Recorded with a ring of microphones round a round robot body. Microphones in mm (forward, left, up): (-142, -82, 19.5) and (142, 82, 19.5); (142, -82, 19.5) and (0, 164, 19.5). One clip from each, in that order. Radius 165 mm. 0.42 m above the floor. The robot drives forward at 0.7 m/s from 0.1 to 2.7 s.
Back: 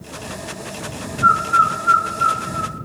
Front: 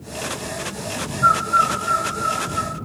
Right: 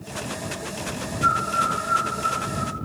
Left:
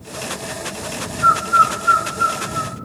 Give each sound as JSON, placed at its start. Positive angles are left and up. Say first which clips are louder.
{"t": 1.2, "sound": "a bird", "louder": "back 2 dB, left 8 dB", "azimuth_deg": 125, "distance_m": 1.3}